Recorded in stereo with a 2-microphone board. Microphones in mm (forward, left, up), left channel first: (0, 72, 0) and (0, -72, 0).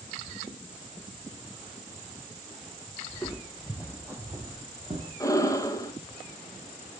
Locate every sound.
3.1 s footsteps: 10° left (ahead or behind), 2.5 m; by 5.1 s 40° right (ahead or behind), 2.5 m
5.2 s breathing: 20° left (ahead or behind), 2 m